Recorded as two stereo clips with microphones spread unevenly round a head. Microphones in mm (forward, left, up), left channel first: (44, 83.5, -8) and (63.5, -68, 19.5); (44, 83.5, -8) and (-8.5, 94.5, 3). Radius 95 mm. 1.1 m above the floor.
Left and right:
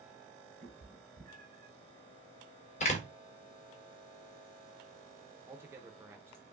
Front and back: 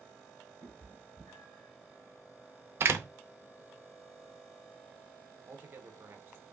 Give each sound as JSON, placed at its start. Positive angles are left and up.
{"t": 0.6, "sound": "a cat meowing", "azimuth_deg": -65, "distance_m": 2.0}
{"t": 2.8, "sound": "a door slam", "azimuth_deg": 155, "distance_m": 0.5}
{"t": 5.5, "sound": "a man speaking", "azimuth_deg": -160, "distance_m": 0.6}